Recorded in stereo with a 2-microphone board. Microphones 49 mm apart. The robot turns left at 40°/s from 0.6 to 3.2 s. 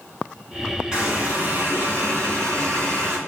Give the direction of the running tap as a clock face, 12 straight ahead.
1 o'clock.